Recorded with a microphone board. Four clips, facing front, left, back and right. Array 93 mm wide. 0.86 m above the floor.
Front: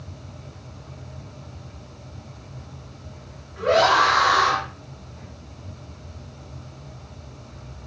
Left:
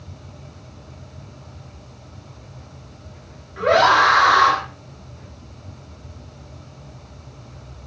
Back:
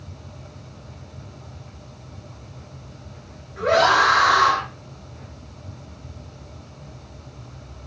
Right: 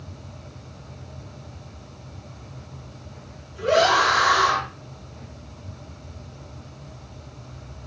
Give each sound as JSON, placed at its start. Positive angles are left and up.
{"t": 3.6, "sound": "a scream", "azimuth_deg": 95, "distance_m": 7.5}